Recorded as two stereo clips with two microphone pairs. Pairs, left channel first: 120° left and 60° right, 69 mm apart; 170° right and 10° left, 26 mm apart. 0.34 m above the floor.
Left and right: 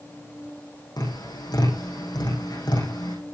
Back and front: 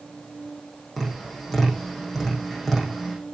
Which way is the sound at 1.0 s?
105° left.